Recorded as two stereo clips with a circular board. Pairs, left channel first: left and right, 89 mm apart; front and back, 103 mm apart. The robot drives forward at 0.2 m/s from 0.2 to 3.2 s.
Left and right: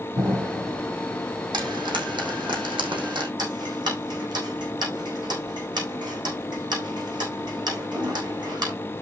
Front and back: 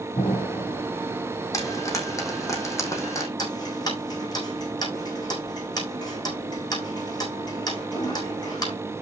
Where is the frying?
60° right, 5.5 m.